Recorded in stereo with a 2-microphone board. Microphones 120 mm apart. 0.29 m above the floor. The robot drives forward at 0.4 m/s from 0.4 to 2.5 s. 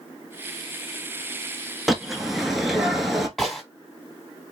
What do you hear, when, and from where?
1.9 s a bird: 5° right (ahead or behind), 1.1 m; by 3.3 s centre (ahead or behind), 1.3 m
3.4 s a gunshot: centre (ahead or behind), 2.5 m